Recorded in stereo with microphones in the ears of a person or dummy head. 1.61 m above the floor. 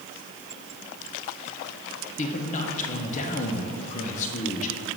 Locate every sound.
2.2 s a man speaking: 40° left (ahead or behind), 0.9 m